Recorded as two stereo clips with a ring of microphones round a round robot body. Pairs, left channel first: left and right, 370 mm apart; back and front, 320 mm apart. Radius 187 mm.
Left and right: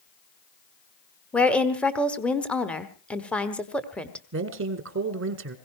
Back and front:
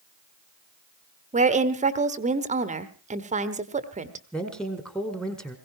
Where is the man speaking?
95° right, 1.6 m.